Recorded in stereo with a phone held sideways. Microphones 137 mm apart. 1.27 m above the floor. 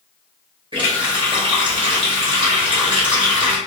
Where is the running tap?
40° right (ahead or behind), 1.2 m.